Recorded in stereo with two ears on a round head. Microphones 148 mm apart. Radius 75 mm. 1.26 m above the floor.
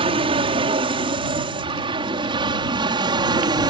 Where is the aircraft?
30° right (ahead or behind); by 3.7 s 25° right (ahead or behind).